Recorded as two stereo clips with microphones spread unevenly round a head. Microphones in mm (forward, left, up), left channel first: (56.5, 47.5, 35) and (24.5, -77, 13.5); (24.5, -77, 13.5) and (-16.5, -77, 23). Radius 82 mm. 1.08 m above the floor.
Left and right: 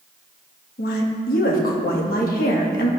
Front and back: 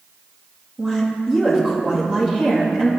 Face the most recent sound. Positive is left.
turn(degrees=100)